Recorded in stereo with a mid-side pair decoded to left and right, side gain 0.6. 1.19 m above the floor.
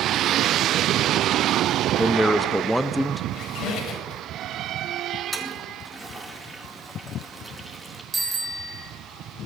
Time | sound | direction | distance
2.0 | a man speaking | 5° left | 1.0 m
3.3 | a squeak | 60° left | 4 m
5.3 | a toilet flushing | straight ahead | 2.5 m
8.1 | a bicycle bell | 10° right | 5.5 m